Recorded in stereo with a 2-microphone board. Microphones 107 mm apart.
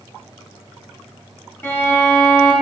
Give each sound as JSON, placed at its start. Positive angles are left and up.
{"t": 1.6, "sound": "a violin", "side_deg": 25, "distance_m": 0.7}